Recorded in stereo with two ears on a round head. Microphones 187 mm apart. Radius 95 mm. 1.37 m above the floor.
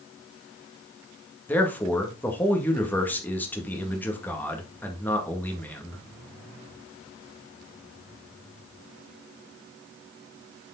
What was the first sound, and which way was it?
A man speaking, 10° left (ahead or behind).